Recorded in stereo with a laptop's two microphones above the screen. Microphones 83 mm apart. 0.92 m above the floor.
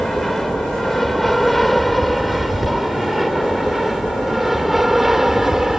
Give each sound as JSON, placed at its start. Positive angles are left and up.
{"t": 0.0, "sound": "an aircraft", "side_deg": 5}